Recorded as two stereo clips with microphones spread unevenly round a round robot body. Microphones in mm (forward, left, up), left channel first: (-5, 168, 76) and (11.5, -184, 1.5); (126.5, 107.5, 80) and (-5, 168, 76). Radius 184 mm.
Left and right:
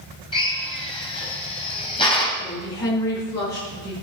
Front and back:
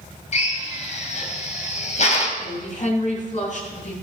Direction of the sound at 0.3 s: 10° left.